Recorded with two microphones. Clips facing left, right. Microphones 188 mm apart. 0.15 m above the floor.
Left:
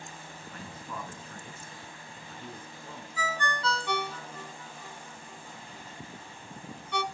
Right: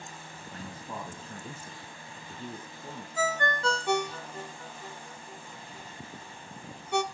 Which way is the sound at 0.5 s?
30° right (ahead or behind).